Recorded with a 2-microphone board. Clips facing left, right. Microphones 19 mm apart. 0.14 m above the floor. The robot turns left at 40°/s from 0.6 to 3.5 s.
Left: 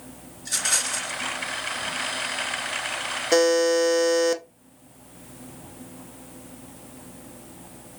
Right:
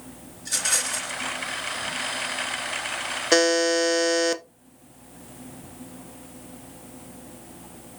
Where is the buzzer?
25° right (ahead or behind), 0.6 m; by 4.4 s 20° right (ahead or behind), 0.6 m.